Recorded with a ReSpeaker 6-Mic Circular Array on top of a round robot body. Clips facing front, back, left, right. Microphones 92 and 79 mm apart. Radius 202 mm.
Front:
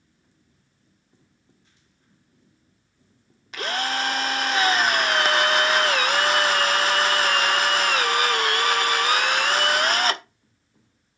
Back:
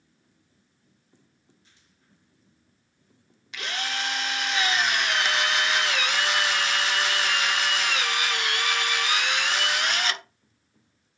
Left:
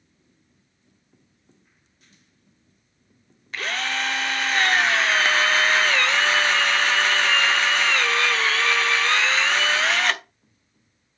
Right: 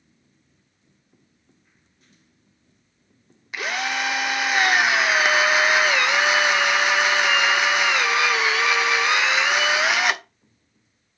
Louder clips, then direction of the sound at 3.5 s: Front 6 dB, right 1 dB; 15° right.